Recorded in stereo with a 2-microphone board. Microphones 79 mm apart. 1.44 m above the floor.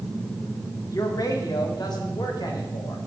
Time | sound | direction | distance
0.9 | a man speaking | 45° left (ahead or behind) | 1.3 m